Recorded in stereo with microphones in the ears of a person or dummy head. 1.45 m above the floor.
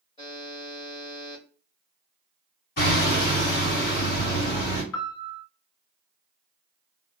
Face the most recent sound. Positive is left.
turn(degrees=75)  # may be behind; listen again after turning